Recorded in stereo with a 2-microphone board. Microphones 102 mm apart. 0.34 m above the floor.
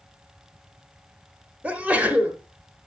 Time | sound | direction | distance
1.6 | a sneeze | 15° right (ahead or behind) | 1.0 m